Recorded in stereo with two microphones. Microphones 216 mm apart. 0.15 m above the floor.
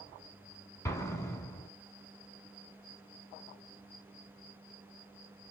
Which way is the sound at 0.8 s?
15° left (ahead or behind).